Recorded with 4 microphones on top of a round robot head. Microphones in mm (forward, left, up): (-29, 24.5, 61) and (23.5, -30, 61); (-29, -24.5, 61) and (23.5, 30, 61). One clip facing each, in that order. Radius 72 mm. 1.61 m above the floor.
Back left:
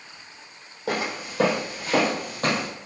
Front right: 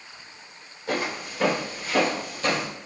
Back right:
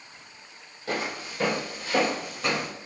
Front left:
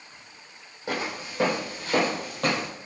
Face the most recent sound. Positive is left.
turn(degrees=75)